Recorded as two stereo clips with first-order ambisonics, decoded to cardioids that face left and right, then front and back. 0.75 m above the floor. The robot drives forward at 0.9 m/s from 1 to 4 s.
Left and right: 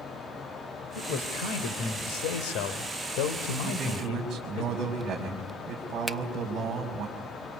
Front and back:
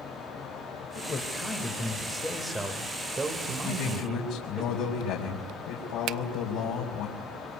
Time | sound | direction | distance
0.9 | a man speaking | 60° left | 3 m
3.6 | a man speaking | 15° right | 4 m
6.1 | a finger snap | straight behind | 0.6 m